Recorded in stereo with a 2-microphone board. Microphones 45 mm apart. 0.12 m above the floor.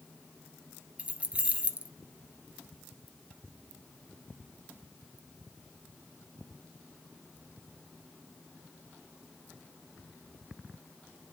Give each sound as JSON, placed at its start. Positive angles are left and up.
{"t": 1.0, "sound": "keys jangling", "side_deg": -25, "distance_m": 1.5}